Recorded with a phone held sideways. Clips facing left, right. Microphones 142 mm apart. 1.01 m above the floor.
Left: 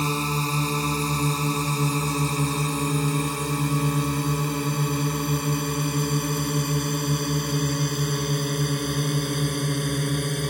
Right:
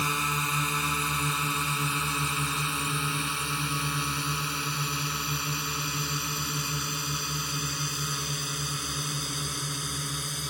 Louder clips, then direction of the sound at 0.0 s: Left 6 dB; 35° left (ahead or behind).